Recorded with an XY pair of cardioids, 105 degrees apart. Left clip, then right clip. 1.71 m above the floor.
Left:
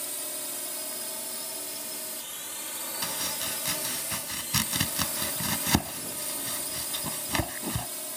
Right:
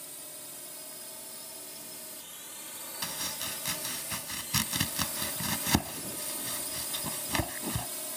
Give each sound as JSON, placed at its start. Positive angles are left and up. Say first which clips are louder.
{"t": 0.0, "sound": "a drone", "louder": "left 9 dB", "azimuth_deg": 65}
{"t": 3.0, "sound": "chopping", "louder": "left 3 dB", "azimuth_deg": 20}